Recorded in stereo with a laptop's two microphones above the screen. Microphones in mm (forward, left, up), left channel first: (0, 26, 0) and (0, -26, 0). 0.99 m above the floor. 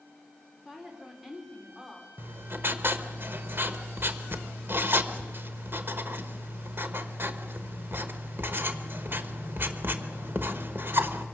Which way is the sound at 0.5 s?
5° right (ahead or behind).